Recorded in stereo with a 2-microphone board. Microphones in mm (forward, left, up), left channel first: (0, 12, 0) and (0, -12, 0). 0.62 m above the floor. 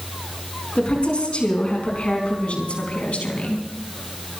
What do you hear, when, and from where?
0.8 s a woman speaking: 45° left (ahead or behind), 5.5 m; by 3.6 s 65° left (ahead or behind), 4.5 m